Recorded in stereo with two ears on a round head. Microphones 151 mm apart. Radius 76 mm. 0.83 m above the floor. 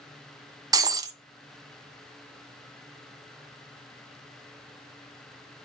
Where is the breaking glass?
20° right (ahead or behind), 1.0 m.